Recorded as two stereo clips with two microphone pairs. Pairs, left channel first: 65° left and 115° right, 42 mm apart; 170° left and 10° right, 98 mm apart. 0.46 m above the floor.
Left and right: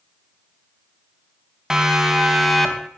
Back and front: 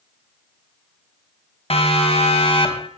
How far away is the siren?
About 4 m.